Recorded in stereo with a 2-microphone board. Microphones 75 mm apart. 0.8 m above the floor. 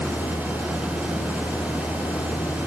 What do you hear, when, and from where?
0.0 s a vehicle: 80° left; by 2.7 s 85° left